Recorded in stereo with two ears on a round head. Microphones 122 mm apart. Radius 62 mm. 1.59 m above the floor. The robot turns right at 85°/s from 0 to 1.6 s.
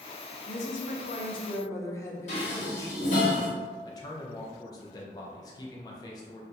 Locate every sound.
0.5 s a woman speaking: 60° left, 0.7 m; by 3.3 s 155° left, 0.7 m
2.3 s dishes clattering: 50° left (ahead or behind), 1.3 m
3.9 s a man speaking: 25° left (ahead or behind), 0.6 m